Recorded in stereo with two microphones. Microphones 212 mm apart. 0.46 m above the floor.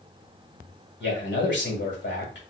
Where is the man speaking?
55° left (ahead or behind), 1.8 m.